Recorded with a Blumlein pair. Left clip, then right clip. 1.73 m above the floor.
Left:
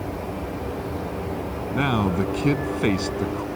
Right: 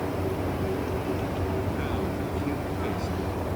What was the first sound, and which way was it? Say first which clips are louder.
A man speaking: left 7 dB; 55° left.